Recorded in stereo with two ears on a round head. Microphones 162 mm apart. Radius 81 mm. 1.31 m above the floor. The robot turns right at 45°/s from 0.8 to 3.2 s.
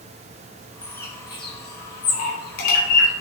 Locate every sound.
0.8 s a bird: 5° left (ahead or behind), 2 m; by 3.1 s 55° left (ahead or behind), 2 m